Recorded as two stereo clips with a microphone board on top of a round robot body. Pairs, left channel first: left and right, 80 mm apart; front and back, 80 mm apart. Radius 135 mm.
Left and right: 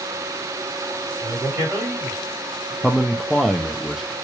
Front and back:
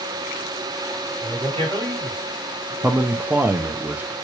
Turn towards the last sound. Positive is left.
turn(degrees=180)